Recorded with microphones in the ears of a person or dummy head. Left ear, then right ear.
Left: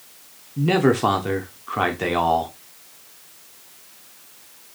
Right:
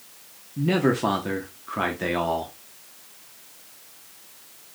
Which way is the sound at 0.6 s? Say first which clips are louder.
Left 4 dB; 20° left (ahead or behind).